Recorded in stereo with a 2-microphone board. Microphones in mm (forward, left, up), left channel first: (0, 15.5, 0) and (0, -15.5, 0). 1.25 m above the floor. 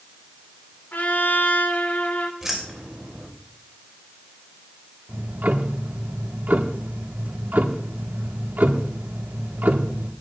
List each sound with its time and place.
0.9 s a trumpet: 75° left (ahead or behind), 1.7 m
2.4 s keys jangling: 10° right (ahead or behind), 4 m
5.1 s ticking: 75° right (ahead or behind), 1.4 m